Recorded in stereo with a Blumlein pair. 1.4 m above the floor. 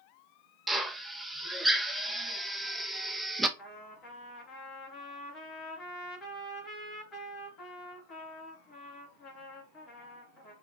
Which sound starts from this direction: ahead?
A drill, at 0.7 s.